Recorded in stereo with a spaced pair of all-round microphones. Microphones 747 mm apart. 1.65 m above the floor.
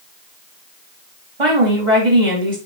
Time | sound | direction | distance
1.4 | a woman speaking | 45° right (ahead or behind) | 3.5 m